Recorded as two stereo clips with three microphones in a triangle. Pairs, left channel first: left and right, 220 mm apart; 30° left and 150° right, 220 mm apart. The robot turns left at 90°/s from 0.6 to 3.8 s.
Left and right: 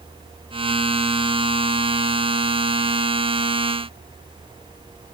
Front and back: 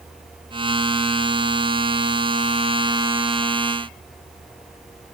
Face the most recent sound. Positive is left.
No sound to turn to.